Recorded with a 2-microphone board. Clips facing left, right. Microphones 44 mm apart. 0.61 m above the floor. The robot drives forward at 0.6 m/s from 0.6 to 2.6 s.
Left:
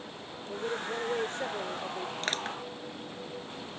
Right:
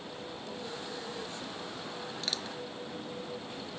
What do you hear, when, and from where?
0.5 s a woman speaking: 45° left (ahead or behind); by 2.1 s 60° left (ahead or behind)
2.2 s crushing: 45° left (ahead or behind)